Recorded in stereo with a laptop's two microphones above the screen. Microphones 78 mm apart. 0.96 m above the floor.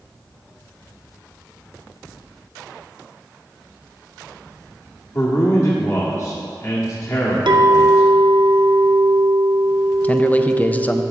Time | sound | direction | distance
5.1 | a man speaking | 40° left (ahead or behind) | 1.7 m
7.5 | a clink | 80° right | 0.8 m
10.0 | a man speaking | 20° left (ahead or behind) | 0.6 m